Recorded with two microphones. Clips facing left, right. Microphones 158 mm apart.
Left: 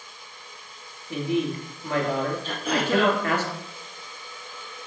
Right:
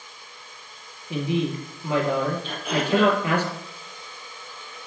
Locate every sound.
1.1 s a woman speaking: 15° right (ahead or behind), 3 m
2.4 s throat clearing: 40° left (ahead or behind), 3.5 m